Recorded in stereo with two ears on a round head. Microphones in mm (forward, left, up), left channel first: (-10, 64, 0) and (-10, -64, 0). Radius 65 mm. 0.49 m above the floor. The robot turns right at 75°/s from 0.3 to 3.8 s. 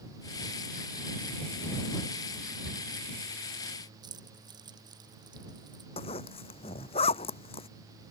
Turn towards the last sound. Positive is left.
turn(degrees=45)  # may be behind; listen again after turning